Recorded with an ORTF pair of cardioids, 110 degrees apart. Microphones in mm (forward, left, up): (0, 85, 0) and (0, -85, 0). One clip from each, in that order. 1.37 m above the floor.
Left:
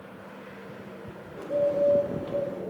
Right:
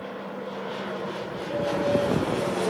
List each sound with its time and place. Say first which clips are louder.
1.4 s a bird: left 4 dB; 10° left, 0.7 m